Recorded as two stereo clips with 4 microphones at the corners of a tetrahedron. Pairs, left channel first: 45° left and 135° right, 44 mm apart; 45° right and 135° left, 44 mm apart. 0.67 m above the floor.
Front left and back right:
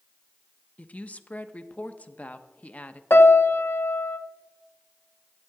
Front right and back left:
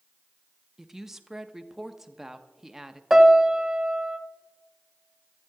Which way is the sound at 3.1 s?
55° left.